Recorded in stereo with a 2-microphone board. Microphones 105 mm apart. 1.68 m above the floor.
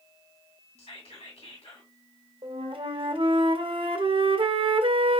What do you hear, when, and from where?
0.8 s whispering: 75° left (ahead or behind), 1.6 m
2.4 s a flute: 55° right (ahead or behind), 0.5 m